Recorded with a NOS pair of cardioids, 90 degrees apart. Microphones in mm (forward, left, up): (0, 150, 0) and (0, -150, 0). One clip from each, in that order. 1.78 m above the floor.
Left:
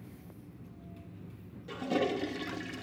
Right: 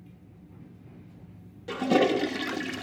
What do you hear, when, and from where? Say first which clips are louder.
1.7 s a toilet flushing: right 8 dB; 50° right, 1.0 m